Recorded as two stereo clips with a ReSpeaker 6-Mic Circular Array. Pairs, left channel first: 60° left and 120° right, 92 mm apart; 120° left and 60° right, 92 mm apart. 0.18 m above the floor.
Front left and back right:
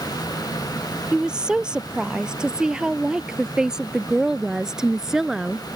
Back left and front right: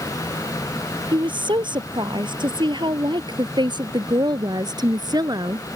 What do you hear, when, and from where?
1.1 s a woman speaking: 40° right